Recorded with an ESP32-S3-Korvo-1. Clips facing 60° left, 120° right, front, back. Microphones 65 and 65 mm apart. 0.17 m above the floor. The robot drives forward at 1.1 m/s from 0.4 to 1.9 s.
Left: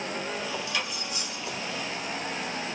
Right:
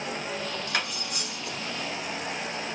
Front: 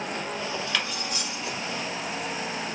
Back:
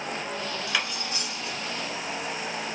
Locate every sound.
0.7 s cutlery clinking: 100° right, 1.1 m; by 1.6 s 140° right, 1.6 m